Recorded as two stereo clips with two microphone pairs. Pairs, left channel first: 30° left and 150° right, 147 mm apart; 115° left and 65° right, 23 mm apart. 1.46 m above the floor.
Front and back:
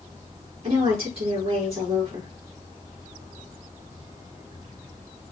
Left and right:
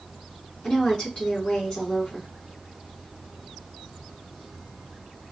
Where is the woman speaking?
160° left, 4.5 m.